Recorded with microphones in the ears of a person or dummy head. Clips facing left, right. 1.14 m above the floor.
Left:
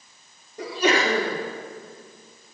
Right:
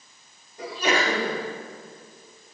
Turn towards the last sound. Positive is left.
turn(degrees=65)  # may be behind; listen again after turning